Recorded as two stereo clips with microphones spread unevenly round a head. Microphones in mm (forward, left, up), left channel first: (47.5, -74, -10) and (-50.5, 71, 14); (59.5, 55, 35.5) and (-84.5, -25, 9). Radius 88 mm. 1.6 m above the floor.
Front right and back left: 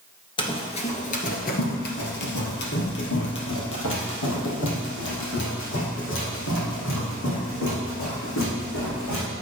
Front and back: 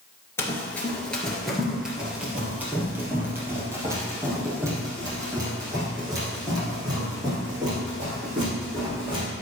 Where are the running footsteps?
5° right, 1.7 m; by 9.2 s 80° right, 6.5 m.